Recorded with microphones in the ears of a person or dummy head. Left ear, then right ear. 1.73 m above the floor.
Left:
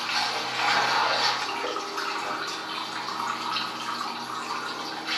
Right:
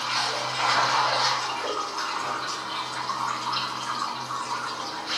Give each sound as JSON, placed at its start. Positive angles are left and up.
{"t": 0.0, "sound": "running water", "side_deg": 45, "distance_m": 1.6}